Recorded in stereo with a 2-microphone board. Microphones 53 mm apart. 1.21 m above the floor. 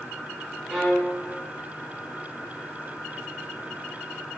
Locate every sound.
0.7 s a violin: 5° right (ahead or behind), 2.0 m